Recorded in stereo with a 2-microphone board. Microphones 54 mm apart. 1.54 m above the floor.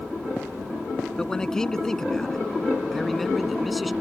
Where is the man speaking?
10° left (ahead or behind); by 3.9 s centre (ahead or behind).